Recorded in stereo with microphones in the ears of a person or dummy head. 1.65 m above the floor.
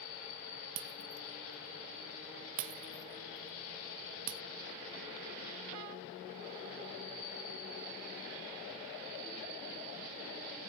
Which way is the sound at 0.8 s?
70° right (ahead or behind).